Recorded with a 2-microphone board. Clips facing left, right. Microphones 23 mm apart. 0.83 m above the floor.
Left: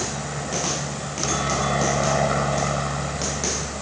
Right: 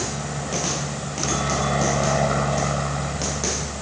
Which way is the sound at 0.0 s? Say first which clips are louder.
Even; centre (ahead or behind).